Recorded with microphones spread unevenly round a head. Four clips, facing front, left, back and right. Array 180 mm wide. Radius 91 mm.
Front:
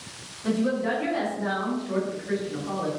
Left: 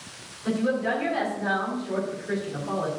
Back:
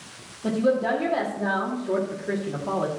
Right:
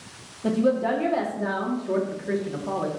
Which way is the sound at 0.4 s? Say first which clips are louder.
Right 3 dB, back 3 dB; 120° right.